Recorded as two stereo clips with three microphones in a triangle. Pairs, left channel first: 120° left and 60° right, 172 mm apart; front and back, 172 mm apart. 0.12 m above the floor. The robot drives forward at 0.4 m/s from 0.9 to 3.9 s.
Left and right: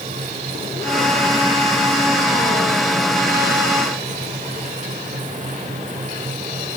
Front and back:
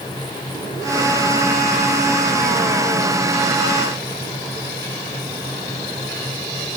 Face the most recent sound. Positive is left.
No sound to turn to.